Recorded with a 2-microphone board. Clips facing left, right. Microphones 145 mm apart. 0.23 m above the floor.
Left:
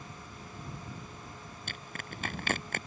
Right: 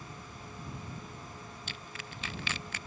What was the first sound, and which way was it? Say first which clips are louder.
Crushing: left 2 dB; 55° left (ahead or behind).